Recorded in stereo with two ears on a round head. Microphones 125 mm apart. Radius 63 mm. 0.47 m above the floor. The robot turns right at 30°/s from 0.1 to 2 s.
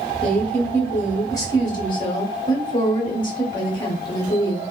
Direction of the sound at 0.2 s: 10° left.